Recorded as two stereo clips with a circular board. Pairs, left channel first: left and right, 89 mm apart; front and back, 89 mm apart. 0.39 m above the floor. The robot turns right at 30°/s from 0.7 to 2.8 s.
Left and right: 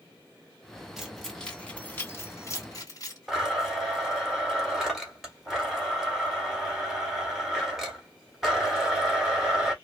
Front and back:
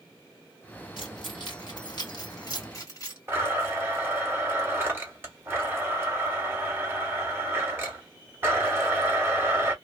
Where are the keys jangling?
5° right, 1.5 m; by 3.2 s 50° left, 1.5 m.